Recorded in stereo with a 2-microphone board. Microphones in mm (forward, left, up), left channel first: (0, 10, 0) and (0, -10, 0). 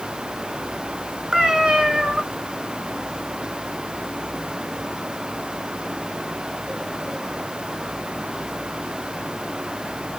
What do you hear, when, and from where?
1.3 s a cat meowing: 40° right (ahead or behind), 1.0 m